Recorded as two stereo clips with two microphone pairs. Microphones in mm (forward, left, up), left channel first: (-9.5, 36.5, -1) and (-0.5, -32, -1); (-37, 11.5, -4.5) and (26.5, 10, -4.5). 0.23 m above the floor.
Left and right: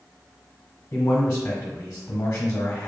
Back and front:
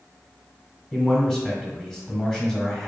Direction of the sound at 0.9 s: 90° left.